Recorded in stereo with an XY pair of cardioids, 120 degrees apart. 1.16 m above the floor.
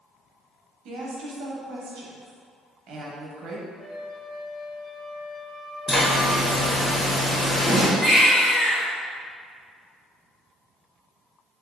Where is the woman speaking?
60° right, 0.7 m.